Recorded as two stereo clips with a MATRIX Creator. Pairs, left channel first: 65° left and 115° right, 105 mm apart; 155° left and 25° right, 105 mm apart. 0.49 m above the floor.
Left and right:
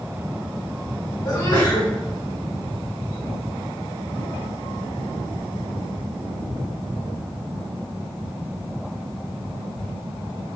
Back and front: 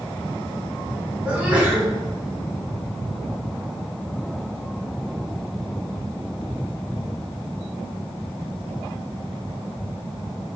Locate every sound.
1.2 s a sneeze: 50° left, 1.8 m